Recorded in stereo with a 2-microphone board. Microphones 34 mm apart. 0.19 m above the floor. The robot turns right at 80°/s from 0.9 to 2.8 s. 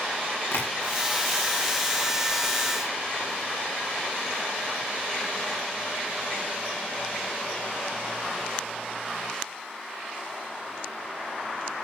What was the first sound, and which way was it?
Tapping, 90° left.